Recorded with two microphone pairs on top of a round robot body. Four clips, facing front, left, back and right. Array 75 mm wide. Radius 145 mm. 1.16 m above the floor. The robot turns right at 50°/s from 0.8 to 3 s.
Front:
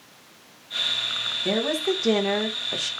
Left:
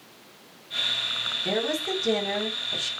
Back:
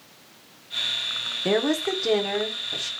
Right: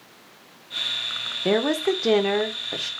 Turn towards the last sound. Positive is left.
turn(degrees=-35)